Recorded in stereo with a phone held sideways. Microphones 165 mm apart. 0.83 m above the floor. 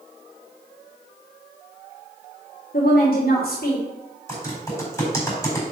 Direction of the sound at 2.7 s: 65° left (ahead or behind).